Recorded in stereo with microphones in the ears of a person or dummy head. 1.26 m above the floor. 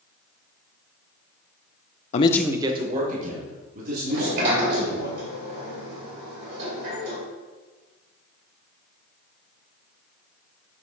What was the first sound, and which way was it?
A man speaking, 45° left (ahead or behind).